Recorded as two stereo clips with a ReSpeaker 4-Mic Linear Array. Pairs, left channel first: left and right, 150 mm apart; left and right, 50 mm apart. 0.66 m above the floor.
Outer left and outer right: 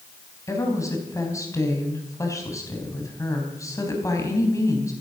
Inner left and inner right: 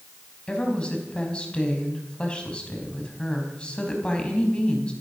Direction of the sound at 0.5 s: 20° left (ahead or behind).